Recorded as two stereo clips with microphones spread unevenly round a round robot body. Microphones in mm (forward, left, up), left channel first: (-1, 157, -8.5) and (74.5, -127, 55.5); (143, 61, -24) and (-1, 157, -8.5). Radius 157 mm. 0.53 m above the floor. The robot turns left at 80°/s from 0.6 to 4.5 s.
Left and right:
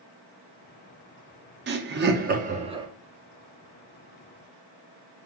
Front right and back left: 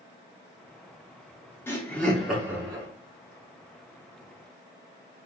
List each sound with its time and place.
1.7 s laughter: 65° right, 0.6 m; by 2.9 s 160° right, 0.6 m